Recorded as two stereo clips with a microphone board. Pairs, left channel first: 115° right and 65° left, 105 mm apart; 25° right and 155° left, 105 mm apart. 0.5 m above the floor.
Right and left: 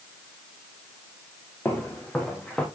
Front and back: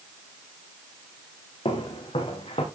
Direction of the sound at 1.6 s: 40° right.